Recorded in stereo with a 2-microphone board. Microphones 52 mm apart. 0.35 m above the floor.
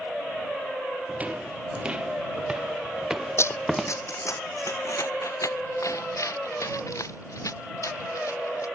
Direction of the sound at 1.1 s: 30° right (ahead or behind).